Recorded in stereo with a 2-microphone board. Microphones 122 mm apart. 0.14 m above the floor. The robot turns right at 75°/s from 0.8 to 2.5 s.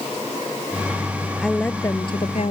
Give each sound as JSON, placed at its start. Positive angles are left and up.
{"t": 1.4, "sound": "a woman speaking", "azimuth_deg": 0}